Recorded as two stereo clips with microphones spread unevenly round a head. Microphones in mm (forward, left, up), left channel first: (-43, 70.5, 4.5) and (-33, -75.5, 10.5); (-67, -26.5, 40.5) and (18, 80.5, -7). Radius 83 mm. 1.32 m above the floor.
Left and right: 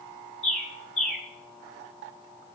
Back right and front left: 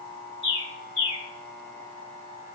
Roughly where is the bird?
Behind.